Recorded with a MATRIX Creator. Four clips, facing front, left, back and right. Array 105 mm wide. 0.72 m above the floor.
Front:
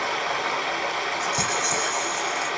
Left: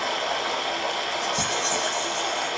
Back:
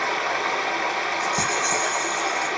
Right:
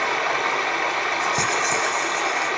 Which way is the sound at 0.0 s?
105° right.